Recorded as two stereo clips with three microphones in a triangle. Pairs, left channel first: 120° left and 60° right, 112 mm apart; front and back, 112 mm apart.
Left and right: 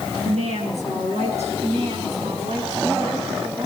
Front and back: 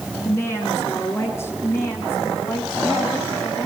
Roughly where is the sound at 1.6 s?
Right.